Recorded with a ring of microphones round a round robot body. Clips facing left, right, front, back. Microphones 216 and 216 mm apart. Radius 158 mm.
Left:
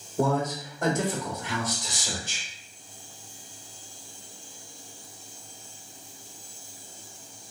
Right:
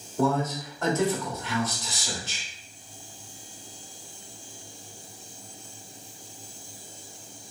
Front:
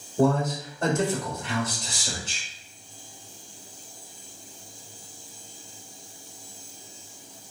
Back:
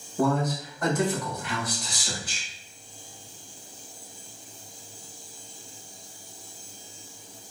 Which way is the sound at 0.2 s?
30° left.